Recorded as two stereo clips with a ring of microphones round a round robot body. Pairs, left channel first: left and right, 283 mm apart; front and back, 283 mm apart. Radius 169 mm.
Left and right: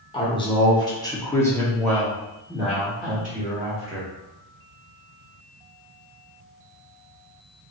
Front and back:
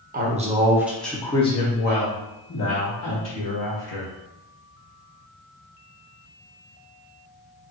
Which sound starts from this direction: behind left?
A woman speaking, at 0.1 s.